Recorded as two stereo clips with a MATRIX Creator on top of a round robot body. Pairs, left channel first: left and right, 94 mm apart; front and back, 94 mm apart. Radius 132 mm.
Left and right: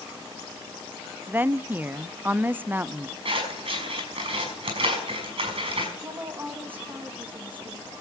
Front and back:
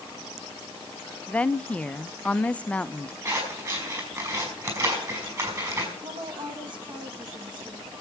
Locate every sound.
1.3 s a woman speaking: 55° right, 0.5 m
3.2 s scissors: 125° right, 5 m
6.0 s a woman speaking: 160° right, 1.8 m